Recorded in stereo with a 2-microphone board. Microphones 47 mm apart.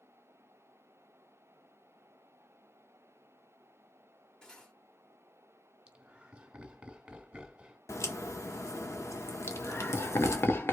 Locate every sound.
4.4 s cutlery clinking: 15° left (ahead or behind), 1.4 m
5.9 s laughter: 15° right (ahead or behind), 1.6 m
7.9 s a crack: 80° left, 0.9 m
9.5 s laughter: 50° left (ahead or behind), 1.0 m